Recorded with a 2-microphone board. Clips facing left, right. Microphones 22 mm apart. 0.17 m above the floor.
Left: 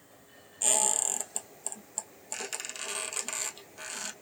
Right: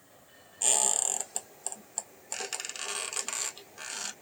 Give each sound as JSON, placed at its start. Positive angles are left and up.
{"t": 0.6, "sound": "a squeak", "side_deg": -10, "distance_m": 1.5}